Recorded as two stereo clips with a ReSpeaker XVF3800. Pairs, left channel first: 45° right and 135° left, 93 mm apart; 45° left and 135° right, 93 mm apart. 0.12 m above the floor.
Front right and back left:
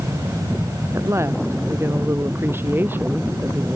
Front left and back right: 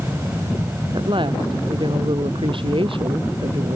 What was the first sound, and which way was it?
A woman speaking, 165° right.